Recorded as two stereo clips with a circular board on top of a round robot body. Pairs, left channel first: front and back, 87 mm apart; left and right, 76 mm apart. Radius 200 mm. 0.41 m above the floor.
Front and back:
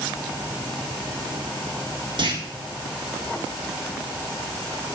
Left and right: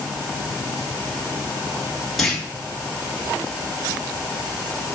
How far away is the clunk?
About 2.5 m.